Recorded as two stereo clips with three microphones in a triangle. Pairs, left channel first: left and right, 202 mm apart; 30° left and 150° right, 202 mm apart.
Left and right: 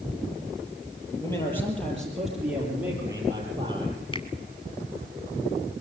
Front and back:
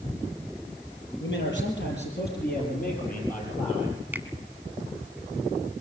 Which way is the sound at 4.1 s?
135° left.